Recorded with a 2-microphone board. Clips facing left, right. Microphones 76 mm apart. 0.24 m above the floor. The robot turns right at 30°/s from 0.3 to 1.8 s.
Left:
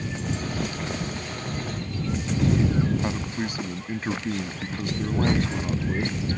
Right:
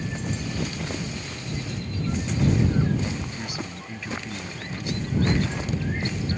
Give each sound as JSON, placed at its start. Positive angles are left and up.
{"t": 3.0, "sound": "a man speaking", "side_deg": 40}